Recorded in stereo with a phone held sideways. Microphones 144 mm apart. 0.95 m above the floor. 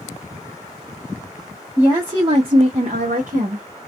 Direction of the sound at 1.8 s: 15° right (ahead or behind).